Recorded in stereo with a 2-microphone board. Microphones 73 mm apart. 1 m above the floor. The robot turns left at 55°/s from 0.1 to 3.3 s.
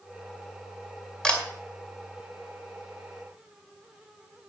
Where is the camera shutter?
10° left (ahead or behind), 2 m; by 1.4 s 20° left (ahead or behind), 2 m.